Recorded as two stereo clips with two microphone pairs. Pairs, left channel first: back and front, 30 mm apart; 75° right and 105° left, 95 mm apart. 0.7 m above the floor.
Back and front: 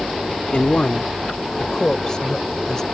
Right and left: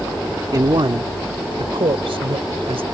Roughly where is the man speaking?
Behind left.